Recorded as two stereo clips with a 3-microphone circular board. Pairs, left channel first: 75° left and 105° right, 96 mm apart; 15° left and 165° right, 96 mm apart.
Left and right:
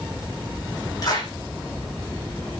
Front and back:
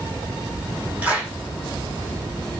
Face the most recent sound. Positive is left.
turn(degrees=120)